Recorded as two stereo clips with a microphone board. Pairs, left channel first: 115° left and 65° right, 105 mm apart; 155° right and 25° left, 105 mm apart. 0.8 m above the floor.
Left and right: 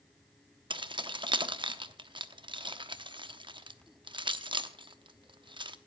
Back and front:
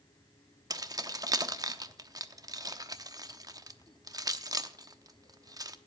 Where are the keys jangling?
30° right, 0.9 m.